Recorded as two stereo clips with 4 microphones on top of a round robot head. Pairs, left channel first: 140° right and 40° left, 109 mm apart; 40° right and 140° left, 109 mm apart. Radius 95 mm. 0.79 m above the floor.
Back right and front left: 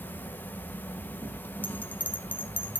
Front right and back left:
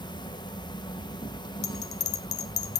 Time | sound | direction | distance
0.0 | an insect | 70° right | 1.1 m
1.6 | a bell | 65° right | 0.6 m